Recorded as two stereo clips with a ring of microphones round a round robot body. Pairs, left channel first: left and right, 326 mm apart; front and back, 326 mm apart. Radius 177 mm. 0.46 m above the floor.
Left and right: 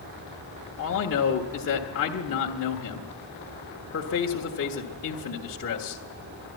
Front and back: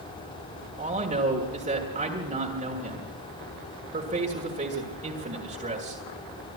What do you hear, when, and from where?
0.8 s a man speaking: 120° left, 1.4 m